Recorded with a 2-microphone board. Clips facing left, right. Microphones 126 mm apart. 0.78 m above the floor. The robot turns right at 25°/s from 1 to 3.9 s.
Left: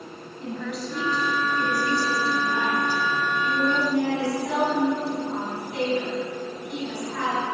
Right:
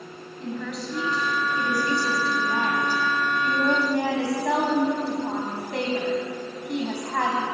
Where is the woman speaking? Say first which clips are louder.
Even; straight behind, 4.5 m; by 7.5 s 110° right, 4.5 m.